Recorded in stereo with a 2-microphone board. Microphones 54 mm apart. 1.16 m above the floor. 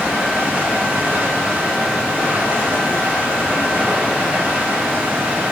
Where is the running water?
40° right (ahead or behind), 2 m.